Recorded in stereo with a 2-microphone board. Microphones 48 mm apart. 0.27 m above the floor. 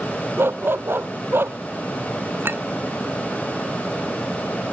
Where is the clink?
50° right (ahead or behind).